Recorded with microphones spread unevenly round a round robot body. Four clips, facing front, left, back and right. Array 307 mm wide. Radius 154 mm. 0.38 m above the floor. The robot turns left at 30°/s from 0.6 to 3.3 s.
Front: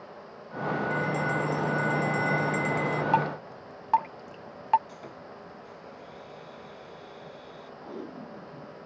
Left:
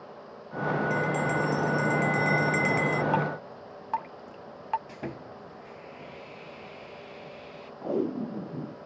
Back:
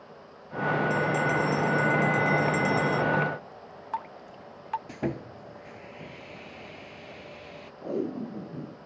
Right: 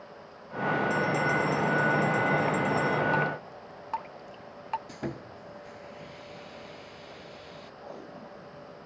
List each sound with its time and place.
0.9 s a bell: 160° left; by 3.0 s 95° left
3.1 s dripping: 10° left; by 4.8 s 5° left
4.9 s sawing: 175° right
7.8 s tape being pulled: 125° left